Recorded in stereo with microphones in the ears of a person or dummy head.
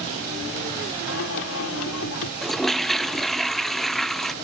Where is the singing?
80° left.